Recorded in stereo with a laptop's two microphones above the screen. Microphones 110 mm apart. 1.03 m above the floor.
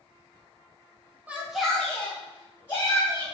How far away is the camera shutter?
No camera shutter in this recording.